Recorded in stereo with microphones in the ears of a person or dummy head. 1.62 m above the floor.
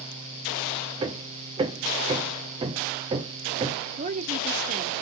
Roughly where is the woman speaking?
Right.